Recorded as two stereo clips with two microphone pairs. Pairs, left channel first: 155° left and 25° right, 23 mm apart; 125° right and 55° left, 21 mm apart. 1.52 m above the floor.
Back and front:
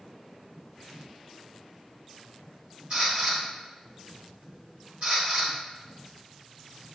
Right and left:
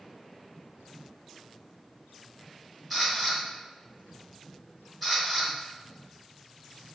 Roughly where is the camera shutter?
Ahead right.